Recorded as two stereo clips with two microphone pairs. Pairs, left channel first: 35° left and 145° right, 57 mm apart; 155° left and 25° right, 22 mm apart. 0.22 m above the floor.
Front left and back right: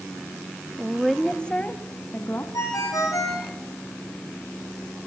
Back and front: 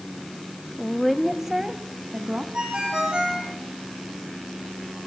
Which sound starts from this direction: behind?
A woman speaking, at 0.8 s.